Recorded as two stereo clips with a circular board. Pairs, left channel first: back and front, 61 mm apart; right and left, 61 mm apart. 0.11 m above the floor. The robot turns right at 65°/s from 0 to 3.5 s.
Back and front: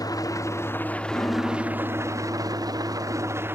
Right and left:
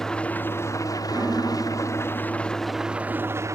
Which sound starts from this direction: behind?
An engine running, at 0.0 s.